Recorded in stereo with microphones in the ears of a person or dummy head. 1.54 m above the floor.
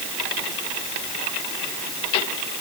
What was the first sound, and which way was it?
Only background noise.